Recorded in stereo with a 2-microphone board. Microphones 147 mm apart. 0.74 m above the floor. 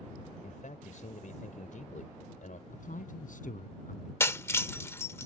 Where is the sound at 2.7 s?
65° left (ahead or behind).